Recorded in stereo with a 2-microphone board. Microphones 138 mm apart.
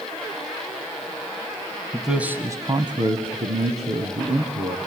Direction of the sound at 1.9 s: Centre (ahead or behind).